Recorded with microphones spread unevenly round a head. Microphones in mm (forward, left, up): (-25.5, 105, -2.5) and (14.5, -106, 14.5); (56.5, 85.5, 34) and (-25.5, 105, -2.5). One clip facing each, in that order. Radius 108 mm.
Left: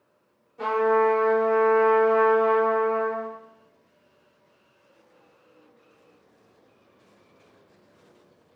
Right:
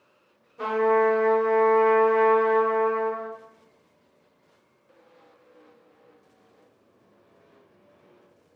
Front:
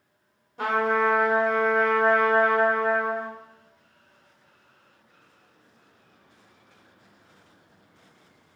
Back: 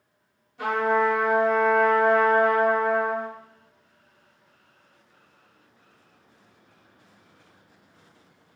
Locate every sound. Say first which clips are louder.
0.6 s a trumpet: even, back 1 dB; 5° right, 0.9 m